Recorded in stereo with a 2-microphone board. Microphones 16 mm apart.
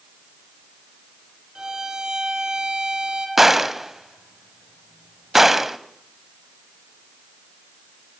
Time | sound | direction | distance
1.6 | a violin | 40° right (ahead or behind) | 9 m
3.4 | a gunshot | 15° right (ahead or behind) | 1.3 m